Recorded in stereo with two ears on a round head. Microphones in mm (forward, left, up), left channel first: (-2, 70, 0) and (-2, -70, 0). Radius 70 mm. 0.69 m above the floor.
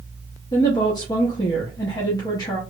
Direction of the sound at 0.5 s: 25° left (ahead or behind).